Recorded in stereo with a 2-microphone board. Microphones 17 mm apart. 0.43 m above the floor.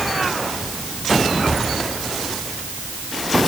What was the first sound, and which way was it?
Only background noise.